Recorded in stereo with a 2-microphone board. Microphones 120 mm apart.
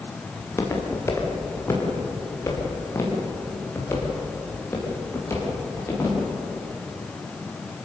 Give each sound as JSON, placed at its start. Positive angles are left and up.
{"t": 0.4, "sound": "footsteps", "side_deg": 25, "distance_m": 5.0}